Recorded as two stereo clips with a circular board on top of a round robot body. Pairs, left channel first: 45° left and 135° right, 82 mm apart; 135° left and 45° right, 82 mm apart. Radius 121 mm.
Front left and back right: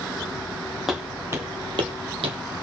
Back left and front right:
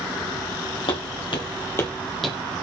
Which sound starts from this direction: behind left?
Footsteps, at 0.9 s.